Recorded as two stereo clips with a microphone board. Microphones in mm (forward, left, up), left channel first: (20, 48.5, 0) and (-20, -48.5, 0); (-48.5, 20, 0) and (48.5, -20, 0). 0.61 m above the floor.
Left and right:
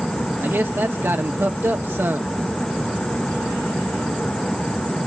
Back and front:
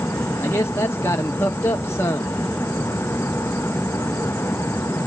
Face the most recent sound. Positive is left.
turn(degrees=-160)